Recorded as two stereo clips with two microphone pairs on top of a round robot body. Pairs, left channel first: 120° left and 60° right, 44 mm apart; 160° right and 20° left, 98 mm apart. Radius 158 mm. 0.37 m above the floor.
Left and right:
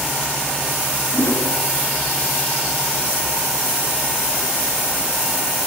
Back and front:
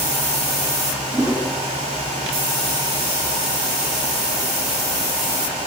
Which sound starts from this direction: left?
A whoosh, at 1.1 s.